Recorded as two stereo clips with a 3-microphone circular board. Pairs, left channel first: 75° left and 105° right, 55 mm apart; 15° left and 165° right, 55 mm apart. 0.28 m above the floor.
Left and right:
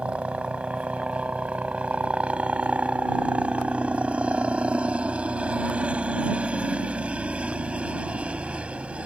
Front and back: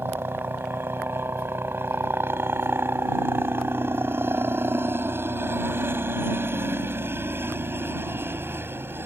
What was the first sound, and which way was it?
A helicopter, 165° right.